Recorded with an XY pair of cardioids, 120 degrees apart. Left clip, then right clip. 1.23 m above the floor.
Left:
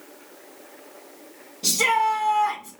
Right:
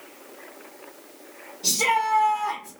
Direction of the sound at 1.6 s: 60° left.